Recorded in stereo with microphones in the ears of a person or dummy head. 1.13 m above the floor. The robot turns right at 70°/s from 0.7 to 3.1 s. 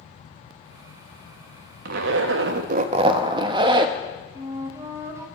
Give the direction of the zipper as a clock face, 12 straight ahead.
4 o'clock.